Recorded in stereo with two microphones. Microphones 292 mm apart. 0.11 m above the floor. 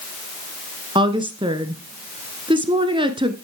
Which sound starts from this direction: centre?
A woman speaking, at 0.9 s.